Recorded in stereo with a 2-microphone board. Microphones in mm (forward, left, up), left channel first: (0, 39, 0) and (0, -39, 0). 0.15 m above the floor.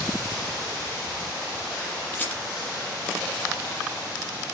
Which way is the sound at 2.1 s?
25° left (ahead or behind).